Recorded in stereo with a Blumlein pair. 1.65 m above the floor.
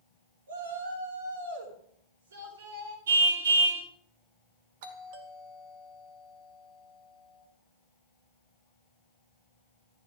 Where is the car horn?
65° right, 3.5 m.